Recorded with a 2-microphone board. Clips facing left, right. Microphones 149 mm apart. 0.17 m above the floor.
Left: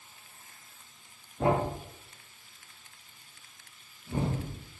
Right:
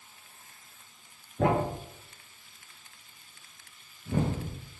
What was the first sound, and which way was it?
A thud, 75° right (ahead or behind).